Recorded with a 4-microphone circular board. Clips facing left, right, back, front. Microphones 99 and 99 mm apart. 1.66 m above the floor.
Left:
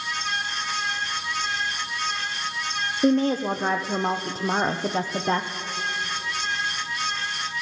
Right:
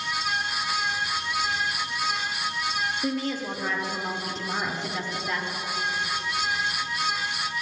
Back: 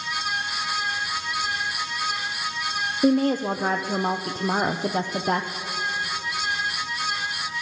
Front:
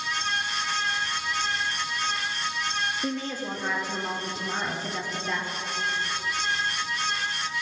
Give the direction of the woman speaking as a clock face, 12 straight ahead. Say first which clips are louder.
Left 13 dB, back 11 dB; 7 o'clock.